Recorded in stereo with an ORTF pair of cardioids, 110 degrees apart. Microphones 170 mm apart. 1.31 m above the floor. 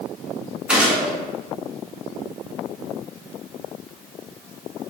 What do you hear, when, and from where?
0.7 s a gunshot: 5° right, 0.9 m